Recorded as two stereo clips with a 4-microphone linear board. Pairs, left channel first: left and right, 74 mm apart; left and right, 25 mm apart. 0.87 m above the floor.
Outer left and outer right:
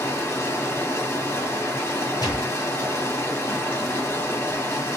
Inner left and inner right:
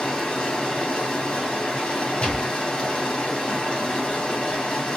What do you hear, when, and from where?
0.0 s running water: 35° left (ahead or behind), 1.5 m
2.2 s a gunshot: 60° left (ahead or behind), 1.4 m